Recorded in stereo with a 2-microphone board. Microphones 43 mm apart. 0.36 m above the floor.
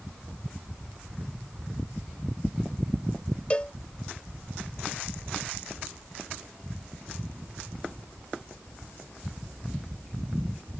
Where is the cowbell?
30° left (ahead or behind).